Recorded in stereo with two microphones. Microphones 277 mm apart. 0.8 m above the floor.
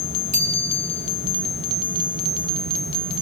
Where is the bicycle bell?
85° right, 4 m.